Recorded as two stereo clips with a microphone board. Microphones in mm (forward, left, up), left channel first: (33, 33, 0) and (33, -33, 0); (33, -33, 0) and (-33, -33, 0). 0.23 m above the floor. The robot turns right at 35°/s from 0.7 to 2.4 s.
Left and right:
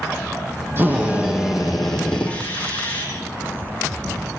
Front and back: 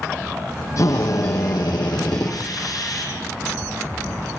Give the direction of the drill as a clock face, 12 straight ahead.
1 o'clock.